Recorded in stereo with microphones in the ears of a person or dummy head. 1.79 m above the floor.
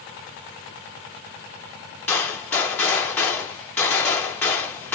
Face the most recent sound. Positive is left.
turn(degrees=10)  # may be behind; listen again after turning